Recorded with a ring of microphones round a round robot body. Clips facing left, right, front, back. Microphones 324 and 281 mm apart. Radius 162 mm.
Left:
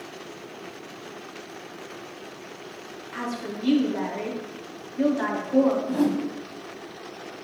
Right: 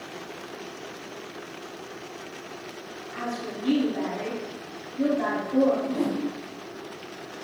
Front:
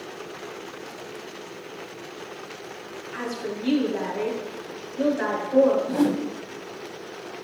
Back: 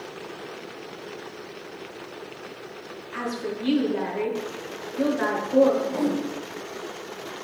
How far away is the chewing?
I don't hear chewing.